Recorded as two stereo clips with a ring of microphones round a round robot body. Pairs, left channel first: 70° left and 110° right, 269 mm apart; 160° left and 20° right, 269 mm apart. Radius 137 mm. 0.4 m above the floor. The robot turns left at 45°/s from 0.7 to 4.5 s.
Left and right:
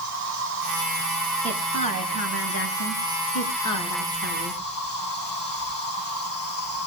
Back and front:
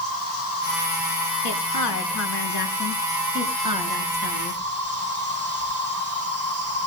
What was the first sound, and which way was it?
An insect, 160° right.